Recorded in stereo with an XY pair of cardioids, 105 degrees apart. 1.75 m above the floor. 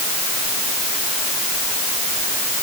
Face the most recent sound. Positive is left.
No sound to turn to.